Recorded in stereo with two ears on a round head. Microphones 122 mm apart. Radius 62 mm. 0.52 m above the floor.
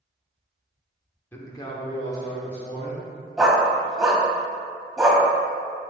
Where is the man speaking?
15° left (ahead or behind), 1.1 m; by 3.1 s 60° left (ahead or behind), 2.5 m.